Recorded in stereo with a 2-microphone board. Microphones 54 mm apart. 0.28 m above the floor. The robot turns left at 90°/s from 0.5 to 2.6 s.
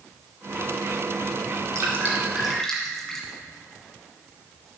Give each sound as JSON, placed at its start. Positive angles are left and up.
{"t": 1.8, "sound": "dripping", "side_deg": -60, "distance_m": 1.6}